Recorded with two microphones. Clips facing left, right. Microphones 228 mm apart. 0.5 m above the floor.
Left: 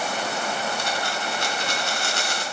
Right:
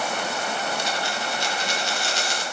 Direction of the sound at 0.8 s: 55° left (ahead or behind).